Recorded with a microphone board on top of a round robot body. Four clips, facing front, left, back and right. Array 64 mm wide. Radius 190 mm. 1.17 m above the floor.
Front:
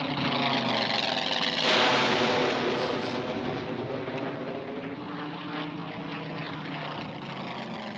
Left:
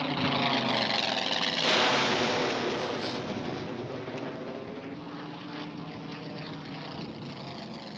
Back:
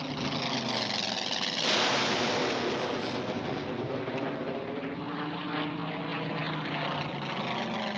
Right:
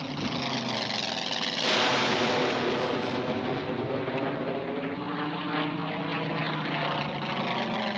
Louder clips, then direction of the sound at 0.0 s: Left 3 dB, front 5 dB; 35° left.